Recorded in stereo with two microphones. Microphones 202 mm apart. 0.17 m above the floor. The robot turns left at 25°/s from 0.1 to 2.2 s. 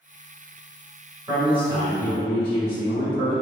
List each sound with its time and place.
1.3 s a man speaking: 25° right (ahead or behind), 1.6 m; by 3.3 s 20° right (ahead or behind), 1.6 m